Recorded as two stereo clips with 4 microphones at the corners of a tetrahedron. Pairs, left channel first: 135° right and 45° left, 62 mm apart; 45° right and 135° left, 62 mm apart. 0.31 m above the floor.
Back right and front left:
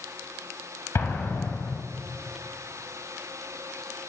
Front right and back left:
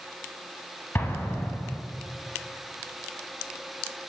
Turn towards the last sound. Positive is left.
turn(degrees=-95)